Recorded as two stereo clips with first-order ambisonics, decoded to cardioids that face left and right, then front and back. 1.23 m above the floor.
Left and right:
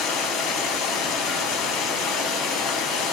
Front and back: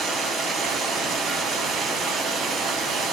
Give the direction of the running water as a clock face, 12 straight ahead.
8 o'clock.